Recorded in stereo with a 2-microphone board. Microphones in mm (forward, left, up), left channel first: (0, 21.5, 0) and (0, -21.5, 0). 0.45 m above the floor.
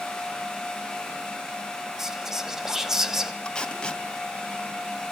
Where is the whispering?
5° right (ahead or behind), 2.5 m.